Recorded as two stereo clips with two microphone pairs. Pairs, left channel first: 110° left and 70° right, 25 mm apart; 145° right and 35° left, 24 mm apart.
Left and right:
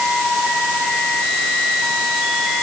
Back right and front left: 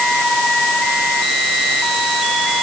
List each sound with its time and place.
Only background noise.